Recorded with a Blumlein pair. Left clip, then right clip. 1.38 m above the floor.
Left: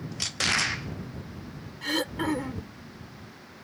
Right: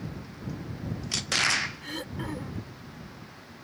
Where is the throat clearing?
25° left.